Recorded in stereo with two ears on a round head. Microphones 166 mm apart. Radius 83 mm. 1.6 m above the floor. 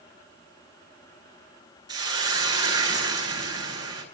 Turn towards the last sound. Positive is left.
turn(degrees=-20)  # may be behind; listen again after turning